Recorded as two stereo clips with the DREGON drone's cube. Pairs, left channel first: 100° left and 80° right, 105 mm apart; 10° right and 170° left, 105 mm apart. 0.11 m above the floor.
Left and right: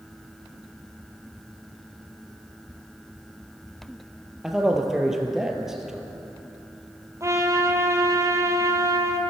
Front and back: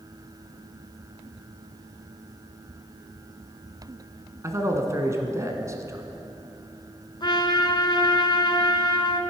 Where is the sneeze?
No sneeze in this recording.